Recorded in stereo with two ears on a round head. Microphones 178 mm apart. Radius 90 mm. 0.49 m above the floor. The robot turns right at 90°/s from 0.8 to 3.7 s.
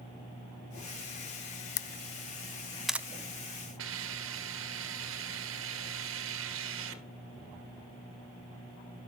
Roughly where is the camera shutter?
Left.